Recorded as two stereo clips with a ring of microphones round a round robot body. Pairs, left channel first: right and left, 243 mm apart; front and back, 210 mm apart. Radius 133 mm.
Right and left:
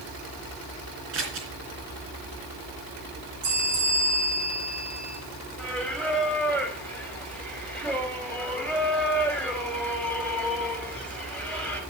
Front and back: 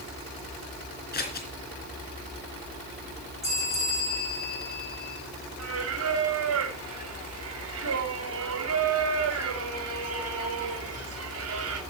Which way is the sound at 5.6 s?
175° right.